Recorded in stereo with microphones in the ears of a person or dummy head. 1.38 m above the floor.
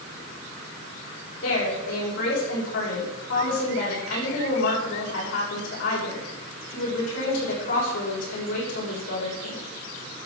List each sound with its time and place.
1.4 s a woman speaking: 70° left (ahead or behind), 6.5 m